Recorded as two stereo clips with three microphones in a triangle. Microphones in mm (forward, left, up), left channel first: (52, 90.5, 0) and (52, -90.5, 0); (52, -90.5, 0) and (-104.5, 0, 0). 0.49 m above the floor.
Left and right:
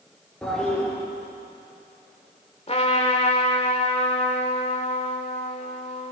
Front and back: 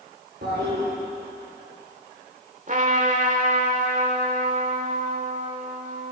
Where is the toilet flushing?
175° left, 7.5 m.